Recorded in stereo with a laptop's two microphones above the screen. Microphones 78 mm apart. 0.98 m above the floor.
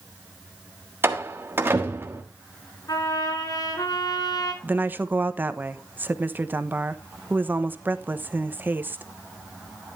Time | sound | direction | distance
1.0 | a door slam | 30° right (ahead or behind) | 1.3 m
2.9 | a trumpet | 60° left (ahead or behind) | 4.5 m
4.6 | a woman speaking | 25° right (ahead or behind) | 1.0 m